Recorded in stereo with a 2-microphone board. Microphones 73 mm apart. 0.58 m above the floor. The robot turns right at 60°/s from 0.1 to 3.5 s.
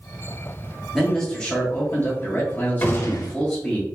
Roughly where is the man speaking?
Centre.